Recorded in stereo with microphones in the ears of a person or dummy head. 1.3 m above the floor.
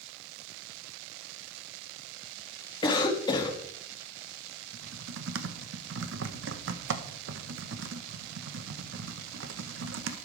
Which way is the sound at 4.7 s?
70° right (ahead or behind).